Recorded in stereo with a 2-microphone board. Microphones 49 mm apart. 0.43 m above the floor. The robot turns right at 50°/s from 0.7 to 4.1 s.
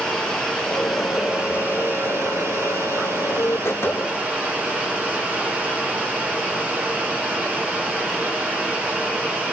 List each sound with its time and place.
0.0 s running water: 165° left, 2.0 m; by 9.5 s 25° right, 2.0 m